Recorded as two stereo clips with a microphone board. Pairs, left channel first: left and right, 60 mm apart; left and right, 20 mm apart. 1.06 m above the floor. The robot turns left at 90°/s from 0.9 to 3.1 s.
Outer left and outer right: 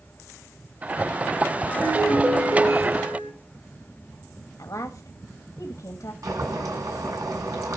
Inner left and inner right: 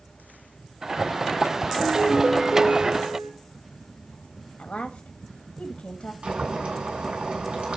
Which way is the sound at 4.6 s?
75° left (ahead or behind).